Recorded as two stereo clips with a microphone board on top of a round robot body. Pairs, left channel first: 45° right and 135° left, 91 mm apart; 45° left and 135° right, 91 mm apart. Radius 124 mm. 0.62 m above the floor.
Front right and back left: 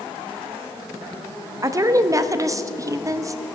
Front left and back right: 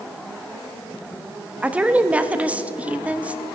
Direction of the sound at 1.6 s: 160° left.